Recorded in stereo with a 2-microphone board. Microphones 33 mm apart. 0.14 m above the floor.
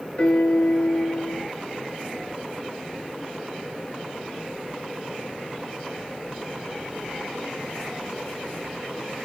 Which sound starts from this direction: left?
A piano, at 0.2 s.